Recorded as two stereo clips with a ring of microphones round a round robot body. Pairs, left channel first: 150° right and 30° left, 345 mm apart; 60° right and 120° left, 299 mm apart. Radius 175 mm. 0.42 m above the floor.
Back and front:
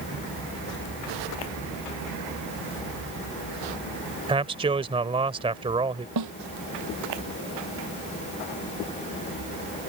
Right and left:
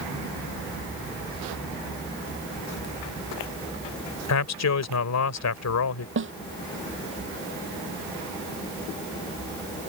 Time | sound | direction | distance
4.3 | a man speaking | 45° right | ?
6.2 | a snare drum | 70° left | ?